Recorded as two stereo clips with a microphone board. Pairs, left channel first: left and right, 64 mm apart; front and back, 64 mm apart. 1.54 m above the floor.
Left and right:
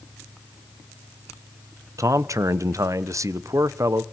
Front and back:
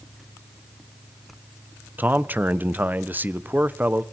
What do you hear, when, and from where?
2.0 s a man speaking: 120° right, 0.9 m